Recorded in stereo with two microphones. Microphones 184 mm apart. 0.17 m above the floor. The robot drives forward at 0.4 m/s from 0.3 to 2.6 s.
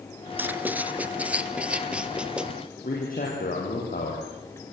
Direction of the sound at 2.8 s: 50° left (ahead or behind).